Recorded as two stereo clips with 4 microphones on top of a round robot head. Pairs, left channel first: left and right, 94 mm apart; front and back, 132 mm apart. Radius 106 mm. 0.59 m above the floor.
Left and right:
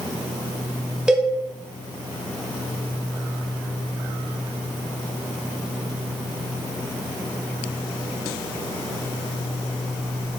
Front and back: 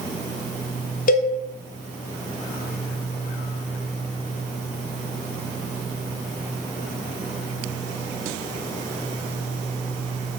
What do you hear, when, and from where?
1.1 s a cowbell: 5° right, 1.1 m